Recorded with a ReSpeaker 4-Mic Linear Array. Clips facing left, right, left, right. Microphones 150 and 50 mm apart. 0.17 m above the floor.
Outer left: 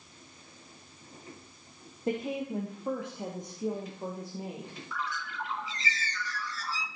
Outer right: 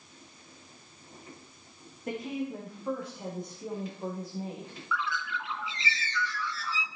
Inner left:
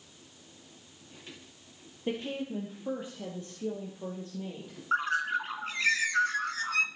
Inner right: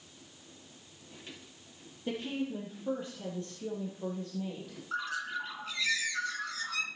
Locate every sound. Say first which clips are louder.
2.1 s a woman speaking: outer left 2 dB, inner left 1 dB; 25° left (ahead or behind), 3 m; by 4.8 s 15° left (ahead or behind), 4.5 m
4.9 s a bird: outer right 4 dB, inner left 7 dB; 45° left (ahead or behind), 1.6 m